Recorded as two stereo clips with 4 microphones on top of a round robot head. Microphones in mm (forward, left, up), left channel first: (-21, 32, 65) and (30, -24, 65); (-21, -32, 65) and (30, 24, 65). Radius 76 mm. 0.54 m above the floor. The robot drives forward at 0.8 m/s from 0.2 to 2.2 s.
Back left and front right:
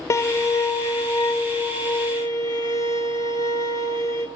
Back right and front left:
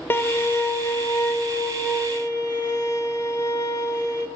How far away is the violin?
About 1.2 m.